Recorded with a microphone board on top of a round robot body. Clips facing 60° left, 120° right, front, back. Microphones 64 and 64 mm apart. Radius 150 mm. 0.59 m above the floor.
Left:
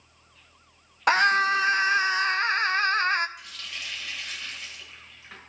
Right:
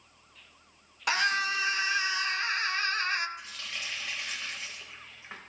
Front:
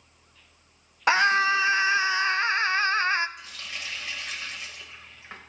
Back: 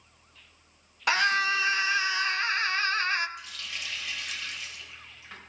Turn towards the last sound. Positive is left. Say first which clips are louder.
# even, front 1 dB
turn(degrees=-60)